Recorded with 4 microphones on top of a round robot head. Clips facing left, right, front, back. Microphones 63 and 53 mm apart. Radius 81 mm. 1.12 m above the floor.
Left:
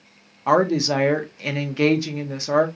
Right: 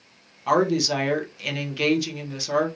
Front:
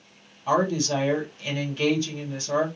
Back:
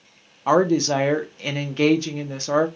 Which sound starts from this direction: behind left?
A woman speaking, at 0.5 s.